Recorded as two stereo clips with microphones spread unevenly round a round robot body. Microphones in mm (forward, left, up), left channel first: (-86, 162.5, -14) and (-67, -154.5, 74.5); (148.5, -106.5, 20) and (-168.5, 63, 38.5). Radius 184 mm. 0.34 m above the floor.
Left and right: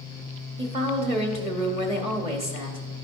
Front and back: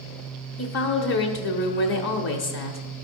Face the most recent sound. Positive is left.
turn(degrees=-5)